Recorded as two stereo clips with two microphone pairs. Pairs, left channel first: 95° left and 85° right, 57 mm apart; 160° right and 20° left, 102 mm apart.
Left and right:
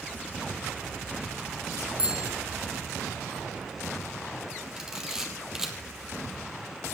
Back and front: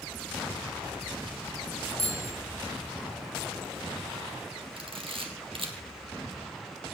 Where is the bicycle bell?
155° right, 3 m.